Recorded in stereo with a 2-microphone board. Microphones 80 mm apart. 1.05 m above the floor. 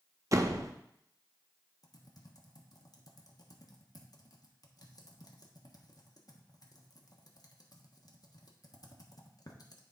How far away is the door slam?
About 0.7 m.